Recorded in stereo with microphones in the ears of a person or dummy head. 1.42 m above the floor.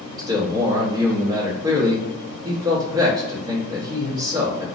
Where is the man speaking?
25° right (ahead or behind), 1.2 m.